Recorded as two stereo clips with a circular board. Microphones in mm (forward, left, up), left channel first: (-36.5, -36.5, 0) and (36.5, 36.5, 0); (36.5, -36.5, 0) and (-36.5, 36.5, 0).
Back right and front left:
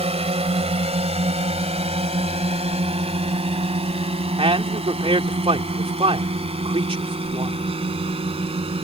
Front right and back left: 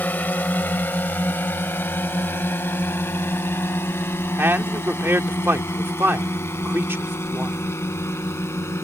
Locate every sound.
0.0 s a drone: 30° left; by 8.8 s 20° left
4.4 s a man speaking: 65° left